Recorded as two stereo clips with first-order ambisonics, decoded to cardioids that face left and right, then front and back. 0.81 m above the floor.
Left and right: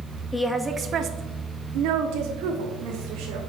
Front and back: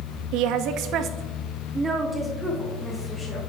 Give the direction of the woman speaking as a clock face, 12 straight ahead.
6 o'clock.